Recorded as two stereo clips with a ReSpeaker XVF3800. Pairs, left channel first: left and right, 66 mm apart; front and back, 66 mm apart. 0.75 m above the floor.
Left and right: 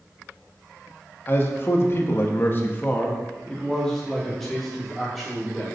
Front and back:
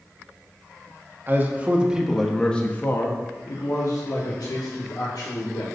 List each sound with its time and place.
1.3 s a man speaking: 135° left, 0.9 m; by 5.6 s straight ahead, 2.0 m